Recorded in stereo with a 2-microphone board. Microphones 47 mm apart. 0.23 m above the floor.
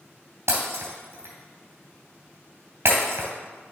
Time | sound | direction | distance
0.5 | breaking glass | 70° right (ahead or behind) | 2.5 m